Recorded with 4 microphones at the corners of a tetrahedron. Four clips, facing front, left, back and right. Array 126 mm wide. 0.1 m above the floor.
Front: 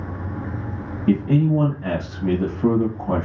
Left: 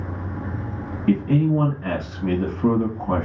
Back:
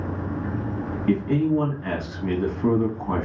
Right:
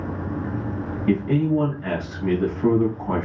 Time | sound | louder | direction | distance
1.1 | a man speaking | left 1 dB, front 3 dB | straight ahead | 2 m